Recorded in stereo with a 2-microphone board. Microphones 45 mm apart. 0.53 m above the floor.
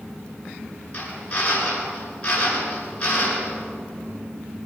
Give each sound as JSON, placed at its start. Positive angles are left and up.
{"t": 0.9, "sound": "a drill", "side_deg": 25, "distance_m": 8.5}